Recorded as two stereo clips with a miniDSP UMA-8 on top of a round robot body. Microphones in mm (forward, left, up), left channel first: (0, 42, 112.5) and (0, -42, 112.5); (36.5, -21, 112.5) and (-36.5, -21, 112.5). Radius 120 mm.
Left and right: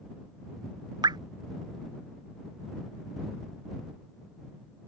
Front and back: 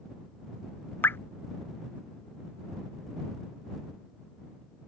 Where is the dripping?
60° right.